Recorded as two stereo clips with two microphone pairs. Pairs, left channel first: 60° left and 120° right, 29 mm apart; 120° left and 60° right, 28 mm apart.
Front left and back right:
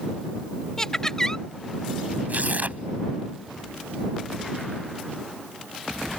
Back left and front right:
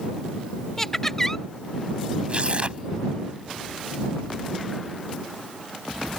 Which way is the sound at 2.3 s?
105° right.